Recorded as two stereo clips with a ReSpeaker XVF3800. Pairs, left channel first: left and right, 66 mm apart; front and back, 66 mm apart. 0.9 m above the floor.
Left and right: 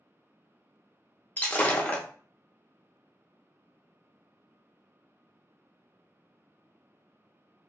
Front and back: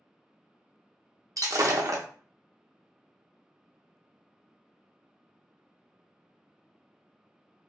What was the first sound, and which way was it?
Breaking glass, 150° left.